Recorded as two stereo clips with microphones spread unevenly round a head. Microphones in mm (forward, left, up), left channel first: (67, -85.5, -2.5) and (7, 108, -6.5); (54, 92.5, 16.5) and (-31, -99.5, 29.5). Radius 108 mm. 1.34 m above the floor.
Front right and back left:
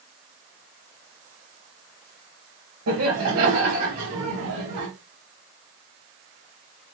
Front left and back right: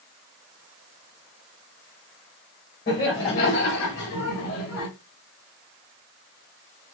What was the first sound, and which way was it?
Laughter, 115° left.